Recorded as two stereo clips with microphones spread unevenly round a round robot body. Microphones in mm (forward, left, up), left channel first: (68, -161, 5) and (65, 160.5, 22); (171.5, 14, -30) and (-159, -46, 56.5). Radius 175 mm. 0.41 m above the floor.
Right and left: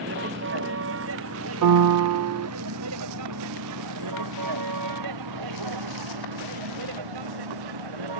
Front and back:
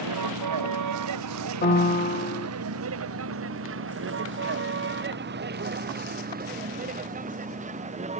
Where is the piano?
65° left.